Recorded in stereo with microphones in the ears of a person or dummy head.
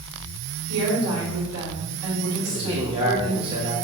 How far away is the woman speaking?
About 3.5 m.